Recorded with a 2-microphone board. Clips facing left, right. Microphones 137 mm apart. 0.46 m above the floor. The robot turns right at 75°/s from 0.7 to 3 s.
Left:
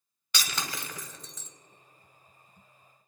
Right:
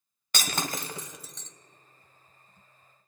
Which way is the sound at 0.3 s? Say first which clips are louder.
Right 4 dB; 45° right (ahead or behind).